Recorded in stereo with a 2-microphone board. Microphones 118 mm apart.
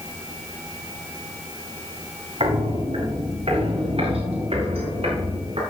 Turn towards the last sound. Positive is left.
turn(degrees=-60)  # may be behind; listen again after turning